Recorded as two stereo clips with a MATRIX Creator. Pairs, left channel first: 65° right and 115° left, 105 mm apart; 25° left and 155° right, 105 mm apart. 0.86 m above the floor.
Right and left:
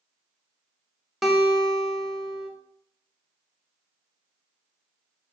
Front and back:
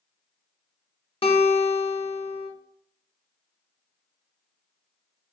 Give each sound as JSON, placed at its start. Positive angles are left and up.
{"t": 1.2, "sound": "a guitar", "azimuth_deg": 25, "distance_m": 0.7}